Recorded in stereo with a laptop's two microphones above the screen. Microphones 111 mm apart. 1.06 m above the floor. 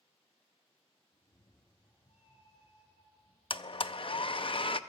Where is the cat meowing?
65° left (ahead or behind), 8 m; by 3.4 s 60° left (ahead or behind), 4.5 m.